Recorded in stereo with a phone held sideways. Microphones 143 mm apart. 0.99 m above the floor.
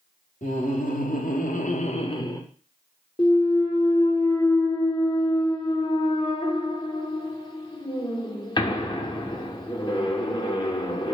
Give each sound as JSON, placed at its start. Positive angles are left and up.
{"t": 0.4, "sound": "laughter", "side_deg": 65, "distance_m": 1.3}
{"t": 3.2, "sound": "a clunk", "side_deg": 35, "distance_m": 0.8}